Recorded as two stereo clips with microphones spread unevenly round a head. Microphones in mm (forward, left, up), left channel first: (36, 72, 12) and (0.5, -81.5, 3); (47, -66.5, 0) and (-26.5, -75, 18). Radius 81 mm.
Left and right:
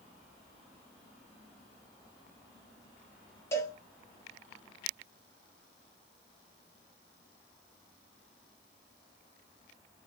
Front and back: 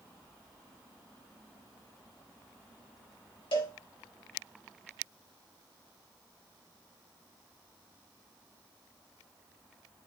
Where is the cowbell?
5° left, 0.6 m.